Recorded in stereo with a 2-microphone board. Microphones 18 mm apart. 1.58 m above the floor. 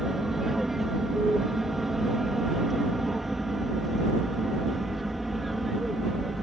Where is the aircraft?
15° right (ahead or behind); by 6.4 s centre (ahead or behind).